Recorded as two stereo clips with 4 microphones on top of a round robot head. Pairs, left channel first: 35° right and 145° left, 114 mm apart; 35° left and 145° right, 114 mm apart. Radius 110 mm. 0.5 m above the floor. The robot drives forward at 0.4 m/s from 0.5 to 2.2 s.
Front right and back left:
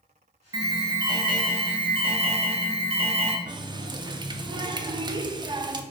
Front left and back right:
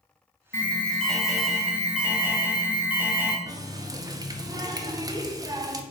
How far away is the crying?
I don't hear crying.